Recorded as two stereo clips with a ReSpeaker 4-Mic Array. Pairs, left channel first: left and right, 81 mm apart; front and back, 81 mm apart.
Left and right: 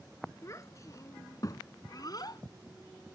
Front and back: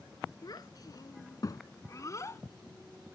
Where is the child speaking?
40° left; by 2.4 s 55° left.